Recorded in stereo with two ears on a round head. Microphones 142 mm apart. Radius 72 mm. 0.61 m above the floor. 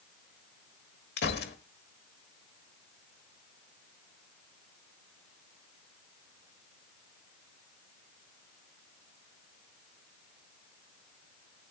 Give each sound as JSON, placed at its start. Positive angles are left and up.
{"t": 1.2, "sound": "a gunshot", "side_deg": 75, "distance_m": 1.2}